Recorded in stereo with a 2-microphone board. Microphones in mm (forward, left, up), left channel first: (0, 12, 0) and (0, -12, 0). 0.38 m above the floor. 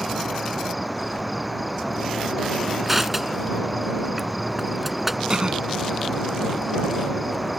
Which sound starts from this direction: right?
A cough, at 5.3 s.